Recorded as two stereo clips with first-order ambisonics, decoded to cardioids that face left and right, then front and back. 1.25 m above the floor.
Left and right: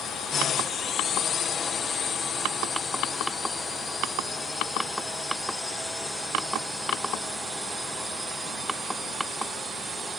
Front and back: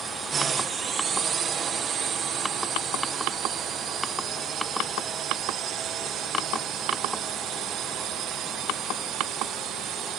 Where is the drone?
125° left; by 10.2 s 160° right.